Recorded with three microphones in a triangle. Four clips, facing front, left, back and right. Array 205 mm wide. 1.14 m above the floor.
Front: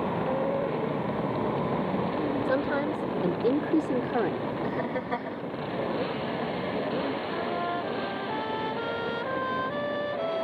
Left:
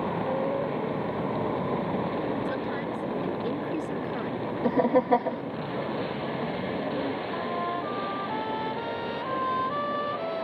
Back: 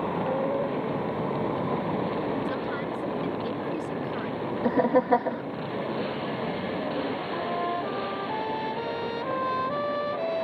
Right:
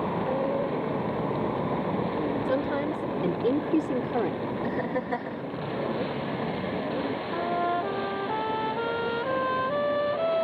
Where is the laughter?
130° left.